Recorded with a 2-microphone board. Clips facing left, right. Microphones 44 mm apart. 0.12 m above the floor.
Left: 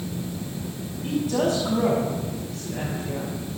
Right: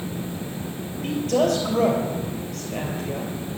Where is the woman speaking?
60° right (ahead or behind), 3 m.